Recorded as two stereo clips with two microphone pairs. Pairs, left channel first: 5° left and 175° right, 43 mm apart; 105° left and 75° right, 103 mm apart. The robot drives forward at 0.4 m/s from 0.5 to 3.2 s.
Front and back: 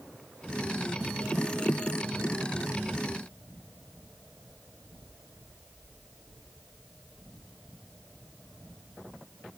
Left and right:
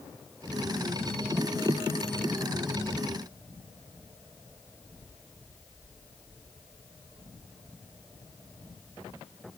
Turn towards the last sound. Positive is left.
No sound to turn to.